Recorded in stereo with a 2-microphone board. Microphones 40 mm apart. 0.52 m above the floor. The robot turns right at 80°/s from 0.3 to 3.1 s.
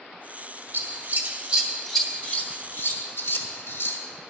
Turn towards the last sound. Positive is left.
turn(degrees=60)  # may be behind; listen again after turning